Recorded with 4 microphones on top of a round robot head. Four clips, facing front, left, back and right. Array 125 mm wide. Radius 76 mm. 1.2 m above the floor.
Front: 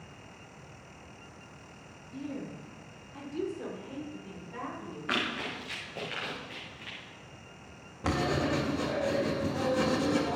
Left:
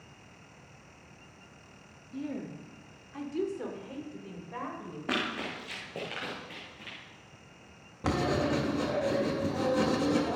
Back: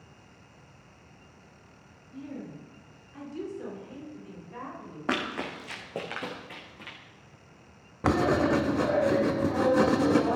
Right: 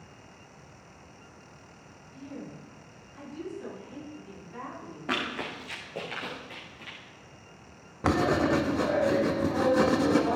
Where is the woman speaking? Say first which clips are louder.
Left 5 dB, front 1 dB; 80° left, 2 m; by 5.0 s 90° left, 5 m.